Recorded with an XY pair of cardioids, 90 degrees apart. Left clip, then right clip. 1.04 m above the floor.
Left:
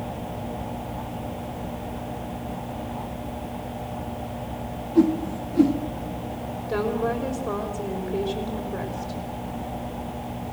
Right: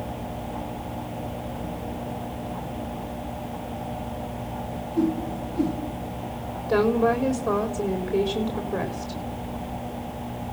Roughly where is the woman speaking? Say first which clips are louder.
Right 5 dB; ahead right.